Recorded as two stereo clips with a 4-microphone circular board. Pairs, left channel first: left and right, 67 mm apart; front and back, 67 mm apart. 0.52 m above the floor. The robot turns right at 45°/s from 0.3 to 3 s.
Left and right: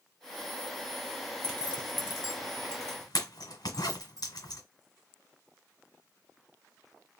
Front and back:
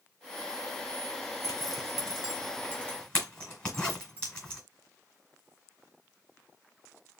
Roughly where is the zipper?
Ahead.